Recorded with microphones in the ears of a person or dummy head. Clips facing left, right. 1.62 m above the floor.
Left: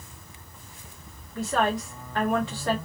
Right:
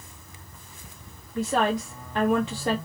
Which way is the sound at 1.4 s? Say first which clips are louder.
Right 1 dB; 20° right (ahead or behind).